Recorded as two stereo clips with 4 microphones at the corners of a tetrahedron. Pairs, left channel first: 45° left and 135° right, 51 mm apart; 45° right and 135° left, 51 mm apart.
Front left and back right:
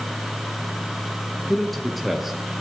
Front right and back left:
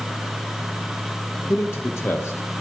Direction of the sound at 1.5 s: 40° right.